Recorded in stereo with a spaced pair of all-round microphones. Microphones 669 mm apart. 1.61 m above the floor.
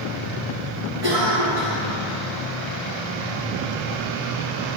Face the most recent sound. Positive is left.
turn(degrees=-65)  # may be behind; listen again after turning